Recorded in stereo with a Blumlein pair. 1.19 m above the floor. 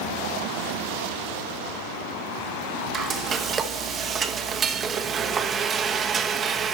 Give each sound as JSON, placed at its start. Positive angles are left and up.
{"t": 2.9, "sound": "frying", "azimuth_deg": -25, "distance_m": 0.9}